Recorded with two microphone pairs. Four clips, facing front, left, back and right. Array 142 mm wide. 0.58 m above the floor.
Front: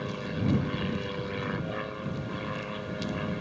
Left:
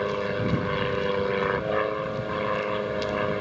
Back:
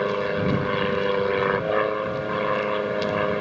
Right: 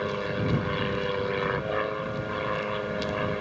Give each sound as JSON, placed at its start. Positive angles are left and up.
{"t": 0.0, "sound": "an aircraft", "azimuth_deg": 165}